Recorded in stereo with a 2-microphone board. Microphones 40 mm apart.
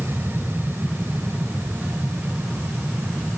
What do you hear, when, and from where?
0.0 s an aircraft: 65° right (ahead or behind)